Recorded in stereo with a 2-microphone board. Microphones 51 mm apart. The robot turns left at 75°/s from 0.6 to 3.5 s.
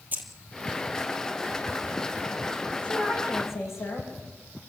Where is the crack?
I don't hear a crack.